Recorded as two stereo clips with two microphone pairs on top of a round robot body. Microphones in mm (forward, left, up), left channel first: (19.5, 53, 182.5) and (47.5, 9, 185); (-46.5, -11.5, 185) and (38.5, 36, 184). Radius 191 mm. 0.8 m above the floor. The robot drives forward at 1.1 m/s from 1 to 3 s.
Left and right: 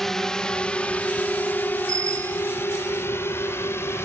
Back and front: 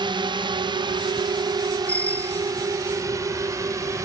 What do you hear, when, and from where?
0.0 s a drone: 40° left; by 4.1 s 85° left
1.9 s a bicycle bell: 75° right